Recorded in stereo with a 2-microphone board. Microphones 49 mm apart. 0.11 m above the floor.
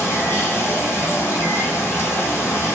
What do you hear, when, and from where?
0.0 s running water: 60° left (ahead or behind), 1.5 m